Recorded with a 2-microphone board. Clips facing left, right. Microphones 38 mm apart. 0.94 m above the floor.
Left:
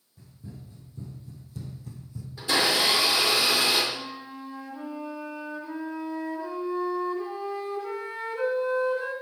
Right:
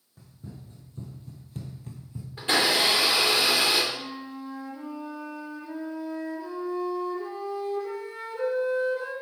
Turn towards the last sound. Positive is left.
turn(degrees=45)  # may be behind; listen again after turning